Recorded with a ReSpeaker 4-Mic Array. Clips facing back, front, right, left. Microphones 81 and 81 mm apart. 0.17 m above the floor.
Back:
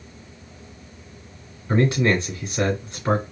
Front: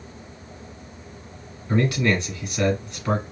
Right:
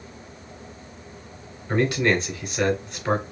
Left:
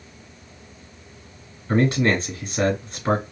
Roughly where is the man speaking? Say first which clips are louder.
Back 2 dB, left 2 dB; behind left.